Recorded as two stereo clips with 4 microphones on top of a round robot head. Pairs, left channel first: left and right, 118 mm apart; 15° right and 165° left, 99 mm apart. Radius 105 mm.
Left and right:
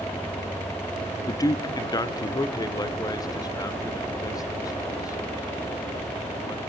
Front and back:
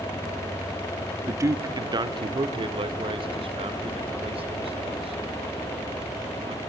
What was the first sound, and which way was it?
A man speaking, 125° left.